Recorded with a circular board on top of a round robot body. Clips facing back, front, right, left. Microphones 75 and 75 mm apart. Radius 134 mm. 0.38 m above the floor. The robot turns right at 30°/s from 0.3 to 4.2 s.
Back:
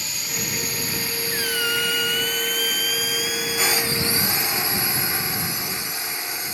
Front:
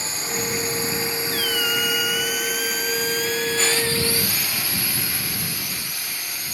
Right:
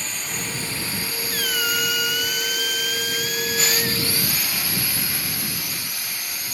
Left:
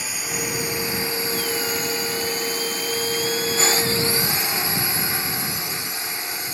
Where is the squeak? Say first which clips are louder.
Back 2 dB, even; 110° right; by 4.0 s 30° right.